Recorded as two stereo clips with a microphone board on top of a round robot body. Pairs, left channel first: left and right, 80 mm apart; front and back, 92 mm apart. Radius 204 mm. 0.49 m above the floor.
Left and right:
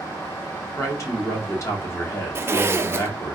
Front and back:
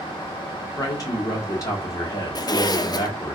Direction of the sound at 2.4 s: 35° right.